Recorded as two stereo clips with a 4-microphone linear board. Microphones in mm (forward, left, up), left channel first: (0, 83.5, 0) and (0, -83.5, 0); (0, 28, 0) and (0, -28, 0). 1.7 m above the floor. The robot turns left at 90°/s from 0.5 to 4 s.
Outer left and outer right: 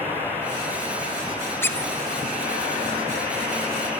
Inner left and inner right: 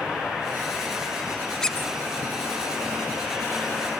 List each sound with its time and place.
1.6 s a squeak: 15° left (ahead or behind), 0.8 m; by 1.9 s 5° left (ahead or behind), 0.8 m